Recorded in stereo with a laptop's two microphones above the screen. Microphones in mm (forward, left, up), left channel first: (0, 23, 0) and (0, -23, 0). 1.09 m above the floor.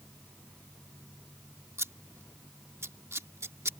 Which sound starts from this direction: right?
Scissors, at 1.8 s.